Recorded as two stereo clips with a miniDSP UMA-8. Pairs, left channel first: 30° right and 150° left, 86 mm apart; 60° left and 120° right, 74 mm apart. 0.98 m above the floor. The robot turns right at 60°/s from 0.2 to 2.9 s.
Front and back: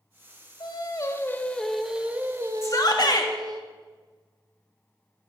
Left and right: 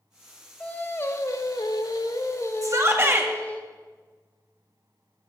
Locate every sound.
0.6 s singing: 15° right, 1.1 m; by 3.6 s 125° left, 1.1 m
2.6 s a shout: 85° right, 1.7 m; by 3.3 s 65° right, 1.7 m